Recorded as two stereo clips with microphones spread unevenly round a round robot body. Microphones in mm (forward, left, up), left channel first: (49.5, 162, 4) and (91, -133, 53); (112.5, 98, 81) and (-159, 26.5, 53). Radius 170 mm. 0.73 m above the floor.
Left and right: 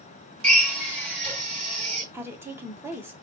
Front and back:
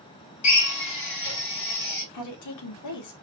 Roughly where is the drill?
Ahead.